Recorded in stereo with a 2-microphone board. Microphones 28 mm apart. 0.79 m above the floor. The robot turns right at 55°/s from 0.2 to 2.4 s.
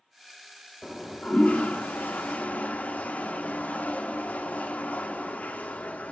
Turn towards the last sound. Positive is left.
turn(degrees=115)